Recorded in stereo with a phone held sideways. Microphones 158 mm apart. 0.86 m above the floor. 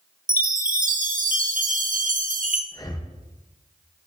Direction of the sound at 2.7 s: 25° left (ahead or behind).